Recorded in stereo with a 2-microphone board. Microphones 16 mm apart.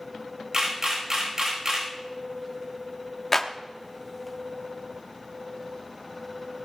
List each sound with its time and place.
0.5 s a camera shutter: 35° right (ahead or behind), 5 m
3.3 s a clap: 25° left (ahead or behind), 1.1 m